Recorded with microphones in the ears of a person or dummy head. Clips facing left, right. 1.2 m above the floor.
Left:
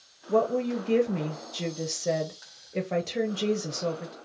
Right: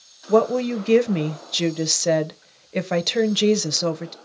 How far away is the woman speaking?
About 0.5 m.